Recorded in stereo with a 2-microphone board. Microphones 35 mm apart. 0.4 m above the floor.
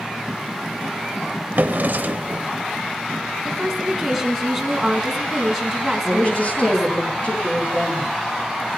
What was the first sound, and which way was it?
A drawer, 55° right (ahead or behind).